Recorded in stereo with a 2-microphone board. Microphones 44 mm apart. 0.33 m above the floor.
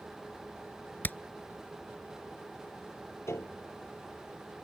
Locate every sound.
1.0 s hammering: 50° left (ahead or behind)
3.3 s a piano: 80° left